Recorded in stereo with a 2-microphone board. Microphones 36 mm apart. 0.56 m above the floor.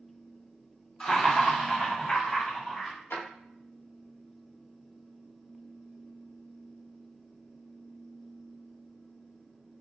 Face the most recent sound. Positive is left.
turn(degrees=70)  # may be behind; listen again after turning